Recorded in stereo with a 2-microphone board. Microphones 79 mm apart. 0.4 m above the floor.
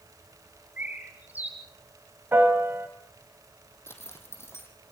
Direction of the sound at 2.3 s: 30° right (ahead or behind).